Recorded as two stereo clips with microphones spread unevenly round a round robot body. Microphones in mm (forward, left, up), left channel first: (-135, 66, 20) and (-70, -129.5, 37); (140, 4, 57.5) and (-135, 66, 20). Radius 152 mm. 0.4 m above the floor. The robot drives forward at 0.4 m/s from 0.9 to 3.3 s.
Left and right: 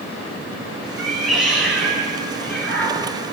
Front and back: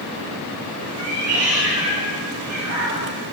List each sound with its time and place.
1.0 s a cat meowing: 160° right, 2.5 m; by 3.4 s 165° right, 3.5 m